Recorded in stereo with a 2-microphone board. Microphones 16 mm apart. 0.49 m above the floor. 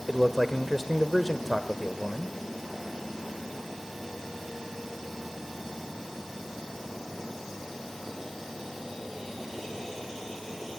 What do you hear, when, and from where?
0.1 s a man speaking: 10° left (ahead or behind), 1.4 m